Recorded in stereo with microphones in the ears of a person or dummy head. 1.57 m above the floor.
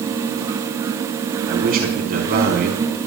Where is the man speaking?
50° right (ahead or behind), 5 m.